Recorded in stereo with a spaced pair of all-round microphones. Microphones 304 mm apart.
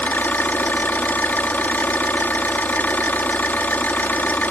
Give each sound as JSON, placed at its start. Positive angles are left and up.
{"t": 0.0, "sound": "an engine running", "side_deg": 5}